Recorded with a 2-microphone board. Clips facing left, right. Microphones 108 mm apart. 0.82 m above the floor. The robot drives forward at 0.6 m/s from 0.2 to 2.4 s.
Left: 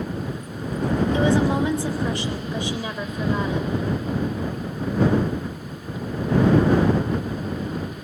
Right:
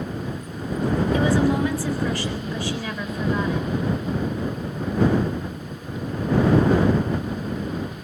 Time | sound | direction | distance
1.1 | a woman speaking | 25° left (ahead or behind) | 3 m